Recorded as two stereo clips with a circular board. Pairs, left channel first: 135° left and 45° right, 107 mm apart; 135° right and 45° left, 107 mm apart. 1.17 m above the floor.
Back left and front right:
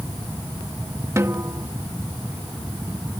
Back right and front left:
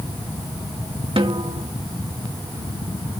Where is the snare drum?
15° left.